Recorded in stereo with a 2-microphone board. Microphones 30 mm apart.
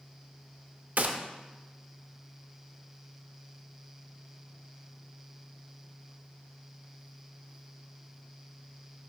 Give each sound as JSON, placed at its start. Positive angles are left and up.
{"t": 1.0, "sound": "a gunshot", "side_deg": -65, "distance_m": 0.6}